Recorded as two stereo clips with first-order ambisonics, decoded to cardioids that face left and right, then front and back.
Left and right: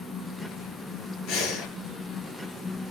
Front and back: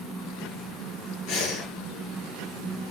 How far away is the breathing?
About 7.5 m.